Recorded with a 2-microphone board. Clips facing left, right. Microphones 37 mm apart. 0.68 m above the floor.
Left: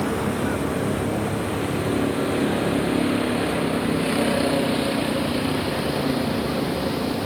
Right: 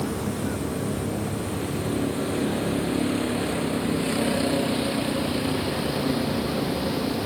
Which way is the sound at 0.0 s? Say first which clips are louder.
Left 4 dB; 35° left (ahead or behind).